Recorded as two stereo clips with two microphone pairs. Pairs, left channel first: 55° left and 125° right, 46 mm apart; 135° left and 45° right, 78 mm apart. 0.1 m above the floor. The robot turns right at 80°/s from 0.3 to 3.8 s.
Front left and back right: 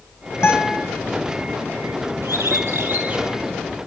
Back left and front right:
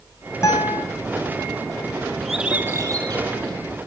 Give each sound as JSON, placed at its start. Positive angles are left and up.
{"t": 0.4, "sound": "a guitar", "azimuth_deg": 80, "distance_m": 3.0}
{"t": 2.2, "sound": "a bird", "azimuth_deg": -145, "distance_m": 3.0}